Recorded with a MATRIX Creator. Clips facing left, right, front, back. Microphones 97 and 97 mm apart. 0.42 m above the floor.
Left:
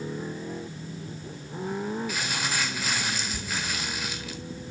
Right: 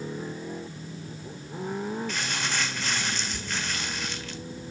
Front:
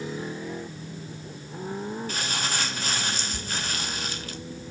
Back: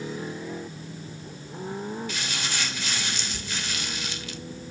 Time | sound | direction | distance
2.1 | crumpling | 10° left | 1.7 m